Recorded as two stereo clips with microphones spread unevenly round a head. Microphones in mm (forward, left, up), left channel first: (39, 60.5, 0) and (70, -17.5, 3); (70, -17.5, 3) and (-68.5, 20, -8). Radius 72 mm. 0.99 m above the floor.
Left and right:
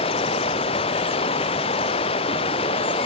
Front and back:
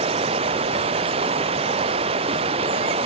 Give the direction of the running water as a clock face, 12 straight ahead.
8 o'clock.